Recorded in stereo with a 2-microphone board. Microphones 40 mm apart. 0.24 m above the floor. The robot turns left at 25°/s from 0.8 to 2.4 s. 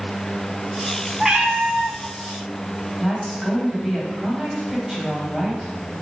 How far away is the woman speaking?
About 1.5 m.